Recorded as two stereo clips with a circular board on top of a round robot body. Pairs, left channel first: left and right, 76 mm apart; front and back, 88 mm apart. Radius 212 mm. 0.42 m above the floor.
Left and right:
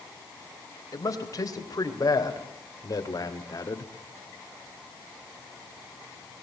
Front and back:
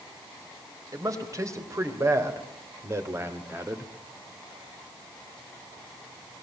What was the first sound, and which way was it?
A man speaking, 130° left.